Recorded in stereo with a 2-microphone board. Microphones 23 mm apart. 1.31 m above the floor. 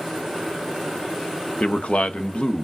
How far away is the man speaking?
About 0.8 m.